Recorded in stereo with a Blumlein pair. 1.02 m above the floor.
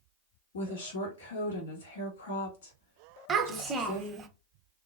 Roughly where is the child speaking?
Ahead.